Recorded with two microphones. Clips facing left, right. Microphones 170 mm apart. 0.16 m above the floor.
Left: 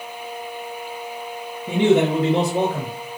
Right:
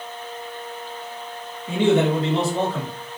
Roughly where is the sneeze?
I don't hear a sneeze.